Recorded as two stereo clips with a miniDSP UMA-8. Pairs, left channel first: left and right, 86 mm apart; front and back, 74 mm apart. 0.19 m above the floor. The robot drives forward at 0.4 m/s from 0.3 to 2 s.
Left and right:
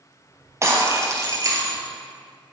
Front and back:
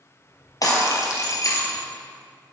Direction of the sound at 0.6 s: 35° right.